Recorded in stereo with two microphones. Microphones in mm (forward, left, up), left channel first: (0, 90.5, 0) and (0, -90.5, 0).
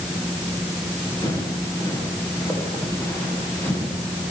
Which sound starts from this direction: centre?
Footsteps, at 1.2 s.